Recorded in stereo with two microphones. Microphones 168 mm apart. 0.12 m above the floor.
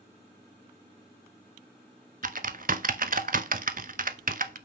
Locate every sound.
2.2 s typing on a keyboard: 50° right (ahead or behind), 0.5 m